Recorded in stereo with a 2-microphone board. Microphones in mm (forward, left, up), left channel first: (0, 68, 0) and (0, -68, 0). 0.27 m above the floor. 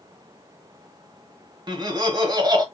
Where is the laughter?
35° right (ahead or behind), 1.0 m.